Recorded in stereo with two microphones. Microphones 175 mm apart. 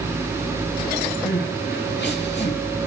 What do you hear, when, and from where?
1.2 s crying: 85° left, 8.5 m